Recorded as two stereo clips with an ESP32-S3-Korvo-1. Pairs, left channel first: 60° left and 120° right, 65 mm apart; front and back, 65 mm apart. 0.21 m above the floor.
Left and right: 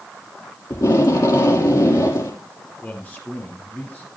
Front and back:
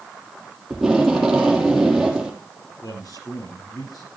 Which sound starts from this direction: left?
Tape being pulled, at 0.7 s.